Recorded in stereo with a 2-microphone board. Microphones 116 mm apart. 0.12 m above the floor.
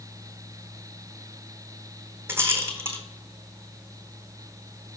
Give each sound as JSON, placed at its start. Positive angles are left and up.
{"t": 2.3, "sound": "a rattle", "side_deg": -20, "distance_m": 1.0}